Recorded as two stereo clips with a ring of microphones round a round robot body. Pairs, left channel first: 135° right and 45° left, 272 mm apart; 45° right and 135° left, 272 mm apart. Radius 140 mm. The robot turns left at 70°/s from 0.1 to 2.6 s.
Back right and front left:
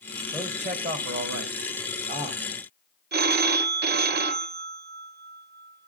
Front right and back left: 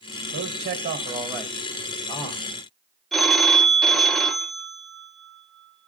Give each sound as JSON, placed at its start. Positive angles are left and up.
{"t": 0.3, "sound": "a man speaking", "azimuth_deg": 120, "distance_m": 1.5}
{"t": 3.1, "sound": "a phone ringing", "azimuth_deg": 45, "distance_m": 0.8}